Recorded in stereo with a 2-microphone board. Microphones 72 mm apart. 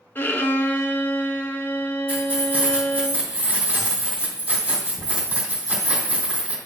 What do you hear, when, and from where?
0.1 s a violin: 30° left (ahead or behind), 0.6 m
2.1 s keys jangling: 20° right (ahead or behind), 3 m